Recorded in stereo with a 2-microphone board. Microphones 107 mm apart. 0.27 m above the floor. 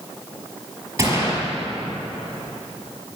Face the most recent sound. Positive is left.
turn(degrees=-25)  # may be behind; listen again after turning